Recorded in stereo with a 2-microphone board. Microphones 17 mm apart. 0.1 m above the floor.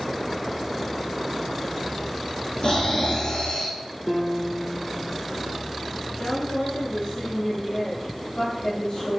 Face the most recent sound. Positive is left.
turn(degrees=70)  # may be behind; listen again after turning